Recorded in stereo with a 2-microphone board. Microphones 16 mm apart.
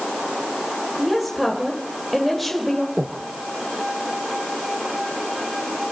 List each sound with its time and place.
1.0 s a woman speaking: centre (ahead or behind), 2 m
3.0 s breathing: 10° right (ahead or behind), 0.6 m